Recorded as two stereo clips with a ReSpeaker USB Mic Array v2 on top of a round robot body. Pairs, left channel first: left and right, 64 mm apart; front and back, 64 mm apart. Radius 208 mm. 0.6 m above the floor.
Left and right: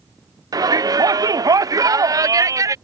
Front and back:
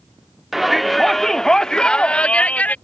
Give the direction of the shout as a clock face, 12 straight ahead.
3 o'clock.